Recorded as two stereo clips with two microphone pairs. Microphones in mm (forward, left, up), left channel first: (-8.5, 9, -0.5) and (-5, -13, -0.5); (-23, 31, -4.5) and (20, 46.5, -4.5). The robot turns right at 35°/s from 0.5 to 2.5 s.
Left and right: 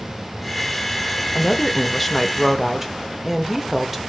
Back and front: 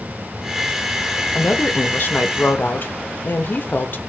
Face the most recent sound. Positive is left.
turn(degrees=-150)